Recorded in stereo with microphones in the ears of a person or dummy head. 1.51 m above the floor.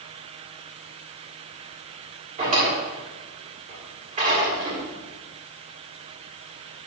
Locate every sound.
2.4 s a drawer: 45° right (ahead or behind), 3 m